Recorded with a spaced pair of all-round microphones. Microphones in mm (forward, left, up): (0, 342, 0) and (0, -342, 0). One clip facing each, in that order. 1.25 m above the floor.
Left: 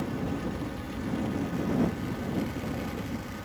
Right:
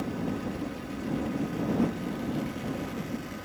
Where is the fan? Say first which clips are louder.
Even; 30° left (ahead or behind).